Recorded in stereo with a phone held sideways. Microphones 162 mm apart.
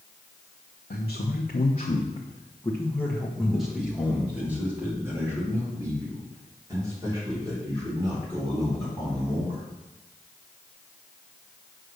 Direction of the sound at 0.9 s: 75° left (ahead or behind).